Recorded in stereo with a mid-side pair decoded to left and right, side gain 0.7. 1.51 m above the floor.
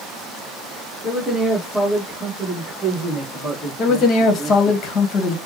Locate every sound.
1.0 s a man speaking: 20° left, 1.5 m; by 4.8 s 25° right, 3 m
3.8 s a man speaking: 45° left, 1.2 m